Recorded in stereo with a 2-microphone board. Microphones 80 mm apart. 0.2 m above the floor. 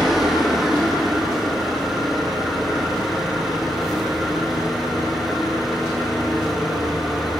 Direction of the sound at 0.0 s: Centre (ahead or behind).